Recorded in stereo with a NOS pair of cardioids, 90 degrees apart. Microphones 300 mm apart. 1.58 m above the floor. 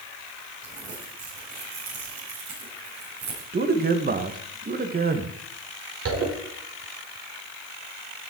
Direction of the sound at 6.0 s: 60° right.